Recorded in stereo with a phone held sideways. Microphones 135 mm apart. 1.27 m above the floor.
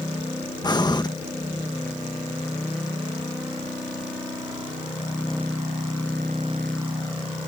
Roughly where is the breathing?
Left.